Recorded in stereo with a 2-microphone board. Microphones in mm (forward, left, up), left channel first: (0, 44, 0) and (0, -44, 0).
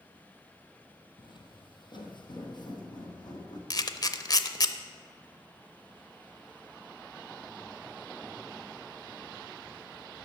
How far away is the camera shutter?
About 0.6 m.